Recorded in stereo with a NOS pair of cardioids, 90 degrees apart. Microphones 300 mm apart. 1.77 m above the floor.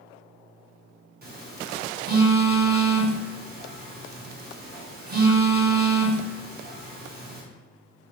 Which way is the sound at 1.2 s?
30° right.